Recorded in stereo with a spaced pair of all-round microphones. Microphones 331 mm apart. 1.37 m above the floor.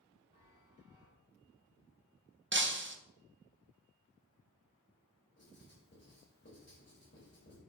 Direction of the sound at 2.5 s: 35° right (ahead or behind).